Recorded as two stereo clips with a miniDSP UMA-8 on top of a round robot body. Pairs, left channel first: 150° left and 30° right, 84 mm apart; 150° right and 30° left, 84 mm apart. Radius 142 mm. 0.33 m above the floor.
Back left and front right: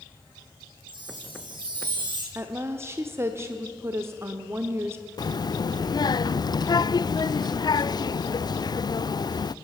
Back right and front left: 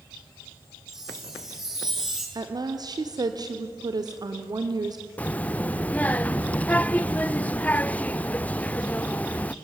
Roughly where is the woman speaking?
Ahead.